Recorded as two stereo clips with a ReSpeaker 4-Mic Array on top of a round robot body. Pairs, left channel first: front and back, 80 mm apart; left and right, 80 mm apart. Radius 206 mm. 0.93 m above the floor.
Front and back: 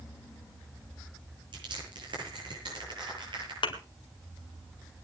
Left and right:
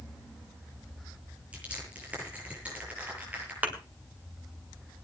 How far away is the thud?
About 2 m.